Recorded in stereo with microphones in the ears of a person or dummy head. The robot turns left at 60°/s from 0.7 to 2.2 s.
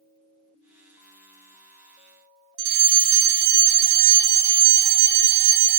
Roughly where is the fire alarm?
Right.